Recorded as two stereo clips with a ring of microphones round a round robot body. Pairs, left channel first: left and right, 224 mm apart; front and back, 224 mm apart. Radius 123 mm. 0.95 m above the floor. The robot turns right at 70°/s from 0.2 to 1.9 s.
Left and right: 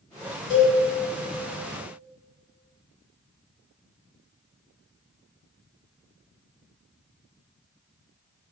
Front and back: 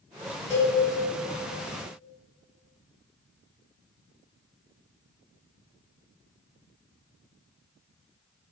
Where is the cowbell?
85° left, 1.4 m; by 0.8 s 105° left, 1.4 m.